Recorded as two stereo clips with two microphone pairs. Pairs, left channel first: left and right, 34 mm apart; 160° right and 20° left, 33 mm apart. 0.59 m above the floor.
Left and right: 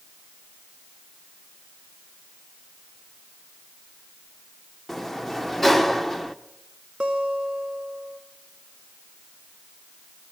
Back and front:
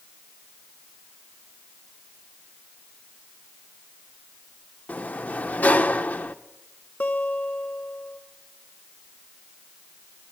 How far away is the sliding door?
About 0.8 m.